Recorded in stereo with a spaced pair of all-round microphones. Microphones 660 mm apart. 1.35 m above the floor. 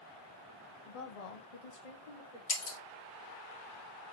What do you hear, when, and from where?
0.9 s a woman speaking: 50° left (ahead or behind), 0.6 m; by 2.4 s 75° left (ahead or behind), 1.4 m
2.5 s breaking glass: 40° left (ahead or behind), 0.7 m